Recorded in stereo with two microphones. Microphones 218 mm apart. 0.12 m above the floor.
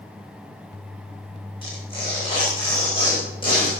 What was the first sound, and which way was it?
Tearing paper, 20° left (ahead or behind).